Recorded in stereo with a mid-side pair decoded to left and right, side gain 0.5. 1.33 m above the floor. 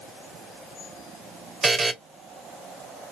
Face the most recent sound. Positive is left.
turn(degrees=-35)